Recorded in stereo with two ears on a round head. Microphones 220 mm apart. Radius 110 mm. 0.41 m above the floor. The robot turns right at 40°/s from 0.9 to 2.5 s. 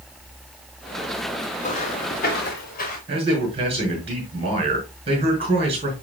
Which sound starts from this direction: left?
Footsteps, at 1.6 s.